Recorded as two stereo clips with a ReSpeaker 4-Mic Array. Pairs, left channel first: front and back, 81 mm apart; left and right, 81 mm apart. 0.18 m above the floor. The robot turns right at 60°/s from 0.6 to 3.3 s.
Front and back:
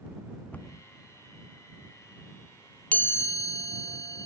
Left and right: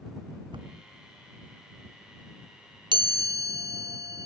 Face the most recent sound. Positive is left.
turn(degrees=-45)